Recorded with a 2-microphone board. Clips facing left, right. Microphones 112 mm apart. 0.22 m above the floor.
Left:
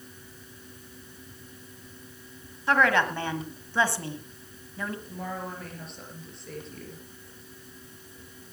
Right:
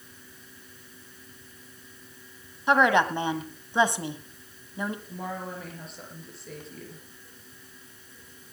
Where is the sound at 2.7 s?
20° right (ahead or behind), 1.2 m.